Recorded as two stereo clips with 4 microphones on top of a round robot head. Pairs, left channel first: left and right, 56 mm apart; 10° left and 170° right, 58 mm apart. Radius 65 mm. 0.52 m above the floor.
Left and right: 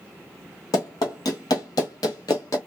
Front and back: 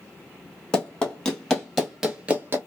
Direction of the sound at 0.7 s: 75° left.